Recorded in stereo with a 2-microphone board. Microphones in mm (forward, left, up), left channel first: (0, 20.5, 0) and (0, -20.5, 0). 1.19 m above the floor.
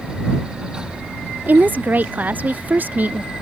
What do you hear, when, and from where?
1.5 s a woman speaking: 40° right (ahead or behind)